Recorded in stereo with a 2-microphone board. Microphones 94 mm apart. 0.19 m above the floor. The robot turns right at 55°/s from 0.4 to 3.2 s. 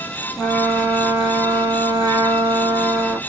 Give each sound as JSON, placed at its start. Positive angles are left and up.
{"t": 0.4, "sound": "a trumpet", "azimuth_deg": 170, "distance_m": 1.2}